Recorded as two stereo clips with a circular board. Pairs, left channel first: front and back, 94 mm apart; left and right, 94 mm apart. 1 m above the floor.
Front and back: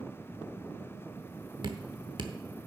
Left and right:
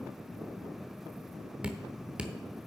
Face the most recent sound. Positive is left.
turn(degrees=-170)